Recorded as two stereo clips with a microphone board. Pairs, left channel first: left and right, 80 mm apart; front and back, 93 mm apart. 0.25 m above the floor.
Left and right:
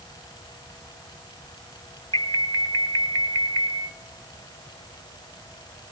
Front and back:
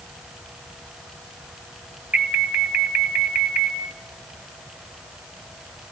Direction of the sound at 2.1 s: 110° left.